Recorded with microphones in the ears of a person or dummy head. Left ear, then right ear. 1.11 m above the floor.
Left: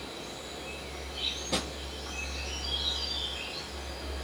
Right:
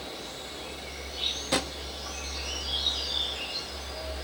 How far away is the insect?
About 3 m.